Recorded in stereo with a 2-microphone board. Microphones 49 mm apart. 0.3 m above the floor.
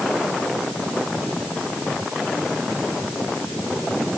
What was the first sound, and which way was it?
Only background noise.